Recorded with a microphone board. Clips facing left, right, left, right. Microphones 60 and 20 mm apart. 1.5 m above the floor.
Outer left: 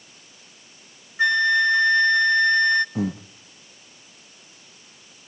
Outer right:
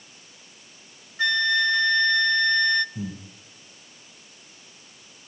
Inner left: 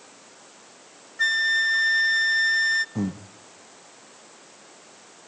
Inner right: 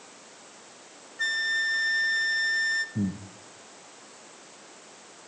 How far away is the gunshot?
No gunshot in this recording.